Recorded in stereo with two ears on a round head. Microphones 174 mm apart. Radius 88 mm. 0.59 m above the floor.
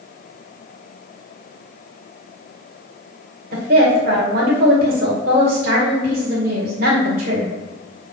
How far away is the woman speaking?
About 2 m.